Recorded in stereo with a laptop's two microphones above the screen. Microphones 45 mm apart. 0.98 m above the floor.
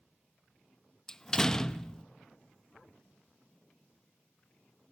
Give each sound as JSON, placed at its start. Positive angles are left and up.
{"t": 1.1, "sound": "a door slam", "side_deg": 10, "distance_m": 0.7}